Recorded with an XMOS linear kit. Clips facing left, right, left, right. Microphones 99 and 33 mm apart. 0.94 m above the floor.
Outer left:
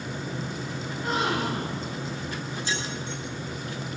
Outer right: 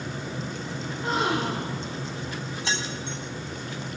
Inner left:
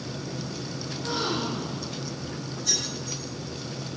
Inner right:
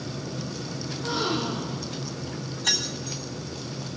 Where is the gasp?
Centre (ahead or behind), 5.5 m.